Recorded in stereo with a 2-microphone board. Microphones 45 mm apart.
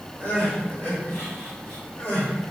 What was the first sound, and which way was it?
Crying, 55° left (ahead or behind).